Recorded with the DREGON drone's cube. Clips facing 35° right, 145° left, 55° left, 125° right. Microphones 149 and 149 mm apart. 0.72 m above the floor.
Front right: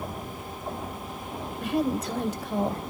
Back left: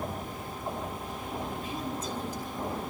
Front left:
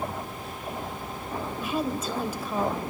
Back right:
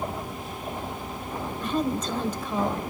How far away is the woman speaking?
About 2.5 m.